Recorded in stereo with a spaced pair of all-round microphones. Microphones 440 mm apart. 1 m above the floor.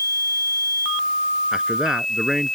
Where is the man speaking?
Centre (ahead or behind).